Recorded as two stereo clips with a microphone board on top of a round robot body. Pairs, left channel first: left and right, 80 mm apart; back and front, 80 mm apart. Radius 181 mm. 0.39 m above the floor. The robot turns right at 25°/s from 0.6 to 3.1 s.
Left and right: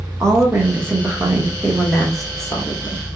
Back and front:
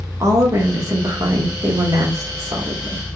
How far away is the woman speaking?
About 1.5 m.